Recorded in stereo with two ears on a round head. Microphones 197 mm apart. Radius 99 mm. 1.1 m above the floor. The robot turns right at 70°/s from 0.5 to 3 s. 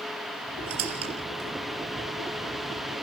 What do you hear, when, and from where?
0.7 s a squeak: 70° right (ahead or behind), 3.5 m; by 2.6 s 25° left (ahead or behind), 3.5 m